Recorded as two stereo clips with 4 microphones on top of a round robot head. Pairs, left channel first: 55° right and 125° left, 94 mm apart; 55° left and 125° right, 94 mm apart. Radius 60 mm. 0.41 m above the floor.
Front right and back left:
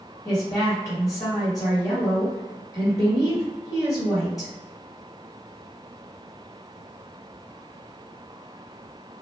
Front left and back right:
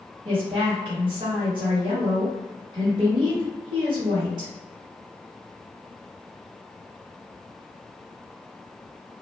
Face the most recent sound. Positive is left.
turn(degrees=-100)